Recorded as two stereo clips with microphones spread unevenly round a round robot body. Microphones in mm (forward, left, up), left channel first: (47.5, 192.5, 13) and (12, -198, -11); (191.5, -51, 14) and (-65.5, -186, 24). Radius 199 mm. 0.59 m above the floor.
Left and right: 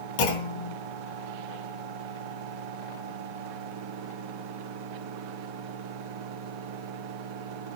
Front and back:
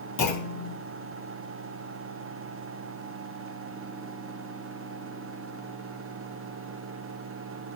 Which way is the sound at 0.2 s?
70° left.